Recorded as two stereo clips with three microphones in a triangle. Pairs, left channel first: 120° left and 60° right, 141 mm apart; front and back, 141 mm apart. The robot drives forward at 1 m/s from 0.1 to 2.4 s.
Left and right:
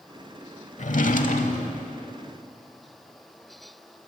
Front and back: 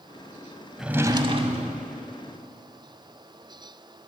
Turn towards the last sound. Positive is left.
turn(degrees=160)